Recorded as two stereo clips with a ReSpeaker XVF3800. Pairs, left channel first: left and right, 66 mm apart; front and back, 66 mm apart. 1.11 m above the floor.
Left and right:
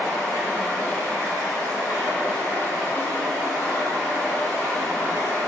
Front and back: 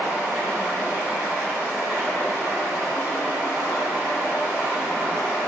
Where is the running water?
70° left, 1.7 m.